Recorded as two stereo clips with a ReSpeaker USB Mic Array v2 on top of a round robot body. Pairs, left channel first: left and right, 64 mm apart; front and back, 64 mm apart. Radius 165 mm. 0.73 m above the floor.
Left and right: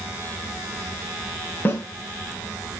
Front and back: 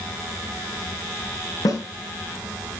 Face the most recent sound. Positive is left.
turn(degrees=30)